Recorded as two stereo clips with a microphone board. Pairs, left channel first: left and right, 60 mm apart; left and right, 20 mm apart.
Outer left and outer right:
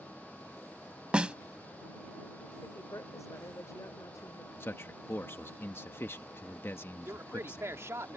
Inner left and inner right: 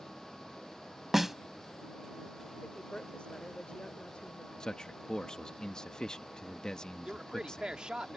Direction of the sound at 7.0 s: 50° right (ahead or behind).